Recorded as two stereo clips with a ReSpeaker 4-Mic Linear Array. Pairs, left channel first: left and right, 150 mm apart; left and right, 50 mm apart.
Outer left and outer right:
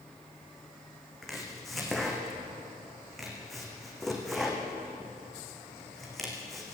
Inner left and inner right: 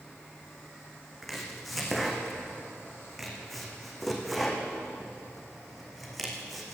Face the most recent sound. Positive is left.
turn(degrees=0)  # may be behind; listen again after turning